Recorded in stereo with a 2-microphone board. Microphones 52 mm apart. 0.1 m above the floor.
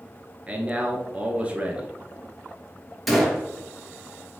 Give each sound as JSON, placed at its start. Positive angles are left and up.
{"t": 0.5, "sound": "a man speaking", "side_deg": -25, "distance_m": 1.5}
{"t": 3.1, "sound": "a gunshot", "side_deg": 0, "distance_m": 1.7}